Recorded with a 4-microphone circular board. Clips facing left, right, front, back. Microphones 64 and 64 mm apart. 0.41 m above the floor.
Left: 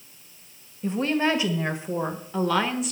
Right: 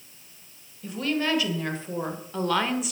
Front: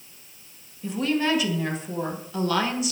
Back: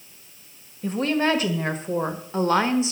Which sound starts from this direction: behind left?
A woman speaking, at 0.8 s.